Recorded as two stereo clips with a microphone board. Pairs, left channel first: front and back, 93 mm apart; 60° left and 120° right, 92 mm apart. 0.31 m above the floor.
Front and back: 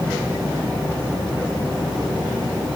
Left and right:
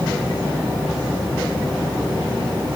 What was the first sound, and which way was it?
Only background noise.